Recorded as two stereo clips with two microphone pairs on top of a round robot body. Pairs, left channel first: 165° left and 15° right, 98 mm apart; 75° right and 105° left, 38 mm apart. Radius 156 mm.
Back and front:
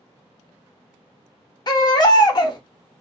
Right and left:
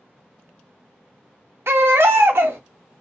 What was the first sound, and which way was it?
A baby crying, 115° left.